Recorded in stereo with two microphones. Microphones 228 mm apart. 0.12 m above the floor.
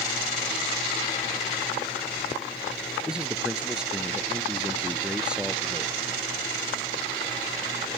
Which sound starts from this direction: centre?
A man speaking, at 3.1 s.